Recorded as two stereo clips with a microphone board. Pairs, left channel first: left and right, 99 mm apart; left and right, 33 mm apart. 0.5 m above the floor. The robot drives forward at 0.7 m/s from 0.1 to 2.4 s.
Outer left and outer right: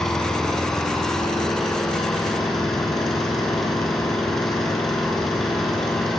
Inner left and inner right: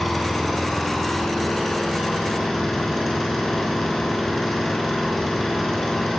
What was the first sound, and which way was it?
An engine running, 5° left (ahead or behind).